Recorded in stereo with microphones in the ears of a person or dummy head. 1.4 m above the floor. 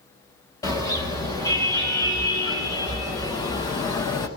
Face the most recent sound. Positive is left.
turn(degrees=20)  # may be behind; listen again after turning